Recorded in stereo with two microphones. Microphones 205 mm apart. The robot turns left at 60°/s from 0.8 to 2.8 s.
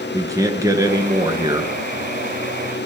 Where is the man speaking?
15° right (ahead or behind), 1.2 m; by 1.7 s 20° right (ahead or behind), 1.2 m.